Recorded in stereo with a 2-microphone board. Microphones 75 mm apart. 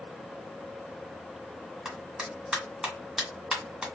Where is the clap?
10° right (ahead or behind), 1.7 m.